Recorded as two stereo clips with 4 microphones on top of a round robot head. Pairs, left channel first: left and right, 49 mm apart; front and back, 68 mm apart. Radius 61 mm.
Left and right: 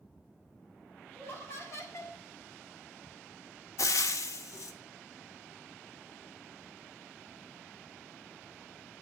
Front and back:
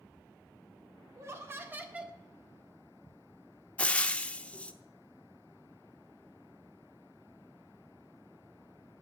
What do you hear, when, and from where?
1.1 s laughter: 140° left, 1.7 m; by 2.2 s 105° left, 1.3 m
3.8 s frying: 75° left, 0.6 m